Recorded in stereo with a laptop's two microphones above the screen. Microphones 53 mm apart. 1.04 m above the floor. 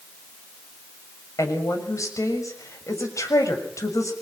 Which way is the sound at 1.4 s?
80° left.